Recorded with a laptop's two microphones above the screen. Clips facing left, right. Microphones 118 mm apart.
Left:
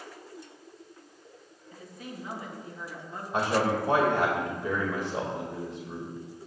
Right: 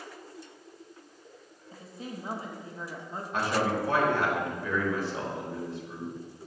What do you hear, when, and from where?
1.7 s a woman speaking: 30° right (ahead or behind), 1.2 m
3.3 s a man speaking: 20° left (ahead or behind), 1.8 m